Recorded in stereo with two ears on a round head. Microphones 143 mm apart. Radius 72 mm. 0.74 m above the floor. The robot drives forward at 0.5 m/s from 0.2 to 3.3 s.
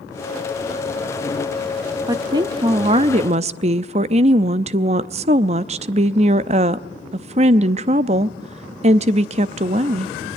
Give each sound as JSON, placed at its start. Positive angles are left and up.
{"t": 2.1, "sound": "a woman speaking", "side_deg": -25, "distance_m": 1.0}